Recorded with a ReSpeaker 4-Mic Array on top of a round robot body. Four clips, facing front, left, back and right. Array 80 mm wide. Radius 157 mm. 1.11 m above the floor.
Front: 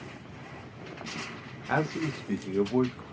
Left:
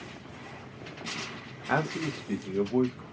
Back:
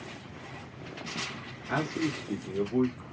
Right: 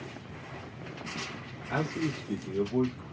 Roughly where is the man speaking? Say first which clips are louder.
Left 2 dB, front 1 dB; left.